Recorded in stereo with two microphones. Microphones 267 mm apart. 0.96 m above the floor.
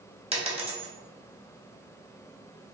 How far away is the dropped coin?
About 1.2 m.